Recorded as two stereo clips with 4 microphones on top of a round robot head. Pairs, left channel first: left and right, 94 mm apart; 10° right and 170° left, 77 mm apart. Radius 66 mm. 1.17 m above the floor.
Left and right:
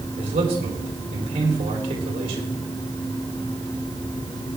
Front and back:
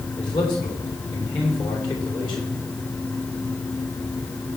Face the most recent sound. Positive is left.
turn(degrees=-50)